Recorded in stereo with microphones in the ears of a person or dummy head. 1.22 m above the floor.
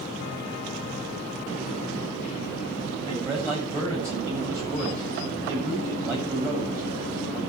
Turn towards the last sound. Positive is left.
turn(degrees=-15)  # may be behind; listen again after turning